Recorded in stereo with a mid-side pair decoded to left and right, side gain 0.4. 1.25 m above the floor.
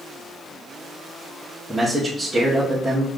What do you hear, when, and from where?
1.7 s a man speaking: 5° left, 1.8 m